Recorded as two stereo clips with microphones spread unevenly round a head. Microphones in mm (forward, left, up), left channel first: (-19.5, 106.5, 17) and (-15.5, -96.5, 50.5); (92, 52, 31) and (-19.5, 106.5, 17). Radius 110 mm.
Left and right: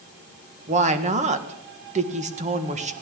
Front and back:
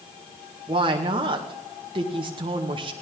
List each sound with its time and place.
0.7 s a woman speaking: 150° right, 1.6 m